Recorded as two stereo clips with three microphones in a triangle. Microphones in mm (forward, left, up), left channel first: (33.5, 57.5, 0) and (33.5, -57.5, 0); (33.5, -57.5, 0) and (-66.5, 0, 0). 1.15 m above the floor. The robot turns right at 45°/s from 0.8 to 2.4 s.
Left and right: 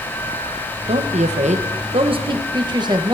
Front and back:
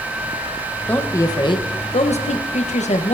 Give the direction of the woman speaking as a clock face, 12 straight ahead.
4 o'clock.